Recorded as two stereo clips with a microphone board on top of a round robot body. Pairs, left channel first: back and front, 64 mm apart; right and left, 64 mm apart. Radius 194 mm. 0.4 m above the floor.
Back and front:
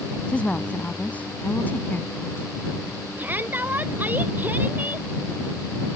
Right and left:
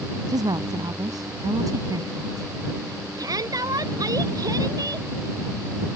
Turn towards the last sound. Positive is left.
turn(degrees=65)